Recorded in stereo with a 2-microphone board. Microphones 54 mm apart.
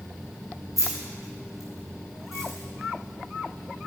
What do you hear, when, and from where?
0.8 s keys jangling: 80° left, 4 m